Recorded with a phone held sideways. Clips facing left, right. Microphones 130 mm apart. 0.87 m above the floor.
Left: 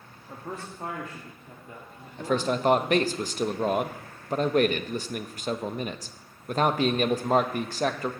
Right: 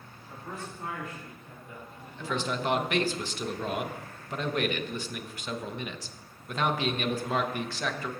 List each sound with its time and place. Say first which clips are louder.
0.3 s a man speaking: left 3 dB; 40° left (ahead or behind), 1.5 m; by 3.2 s 35° left (ahead or behind), 3 m
2.2 s a man speaking: left 6 dB; 45° left (ahead or behind), 0.7 m